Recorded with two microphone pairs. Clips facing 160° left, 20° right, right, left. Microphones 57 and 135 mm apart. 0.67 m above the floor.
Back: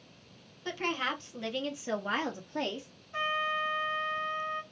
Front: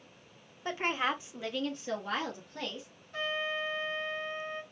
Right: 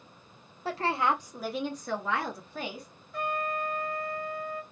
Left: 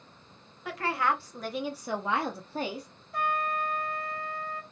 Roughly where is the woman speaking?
Ahead right.